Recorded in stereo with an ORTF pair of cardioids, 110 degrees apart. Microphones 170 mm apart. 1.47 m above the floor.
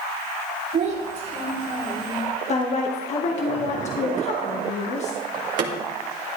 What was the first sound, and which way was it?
A child speaking, 60° right.